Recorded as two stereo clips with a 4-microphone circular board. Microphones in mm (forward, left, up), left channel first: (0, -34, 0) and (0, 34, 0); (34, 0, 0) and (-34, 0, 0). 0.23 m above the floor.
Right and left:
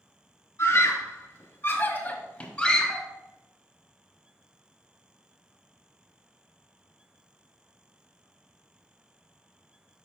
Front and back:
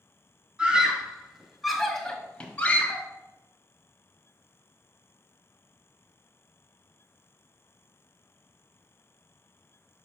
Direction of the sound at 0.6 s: 110° right.